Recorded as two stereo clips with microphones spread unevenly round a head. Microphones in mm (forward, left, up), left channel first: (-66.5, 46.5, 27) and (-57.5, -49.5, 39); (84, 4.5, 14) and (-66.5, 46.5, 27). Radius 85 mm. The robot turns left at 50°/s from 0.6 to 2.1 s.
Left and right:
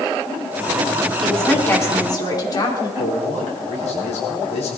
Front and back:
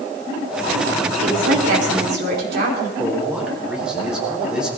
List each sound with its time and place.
1.2 s a woman speaking: 175° right, 4 m; by 2.9 s 140° left, 4 m
3.0 s a man speaking: 80° left, 4 m